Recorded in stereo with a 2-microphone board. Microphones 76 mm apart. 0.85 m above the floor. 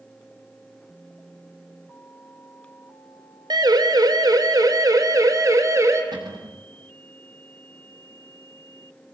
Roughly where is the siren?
Right.